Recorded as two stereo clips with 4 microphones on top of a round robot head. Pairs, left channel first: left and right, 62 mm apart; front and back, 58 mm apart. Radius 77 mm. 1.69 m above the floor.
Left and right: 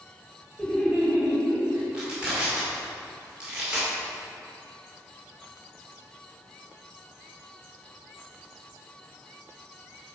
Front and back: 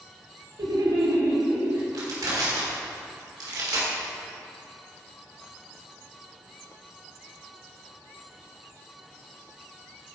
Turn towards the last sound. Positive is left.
turn(degrees=-165)